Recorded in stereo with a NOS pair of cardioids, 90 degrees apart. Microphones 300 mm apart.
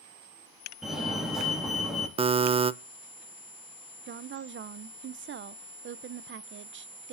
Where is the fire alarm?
Straight ahead, 4.5 m.